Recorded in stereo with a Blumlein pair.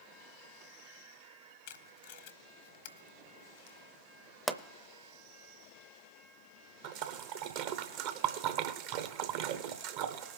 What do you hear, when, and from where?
1.7 s tape being pulled: 55° left, 0.9 m
4.5 s a pop: 5° right, 0.6 m
6.8 s a splash: 45° right, 0.9 m